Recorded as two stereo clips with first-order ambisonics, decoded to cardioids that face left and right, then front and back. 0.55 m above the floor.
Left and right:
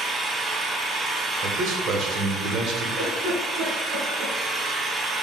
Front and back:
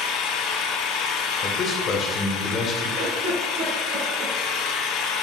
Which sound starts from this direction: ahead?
An engine running, at 0.0 s.